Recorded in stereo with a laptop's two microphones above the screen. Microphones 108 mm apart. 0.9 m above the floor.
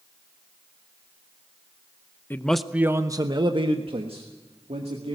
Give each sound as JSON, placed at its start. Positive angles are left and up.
{"t": 2.3, "sound": "a man speaking", "side_deg": 20, "distance_m": 0.7}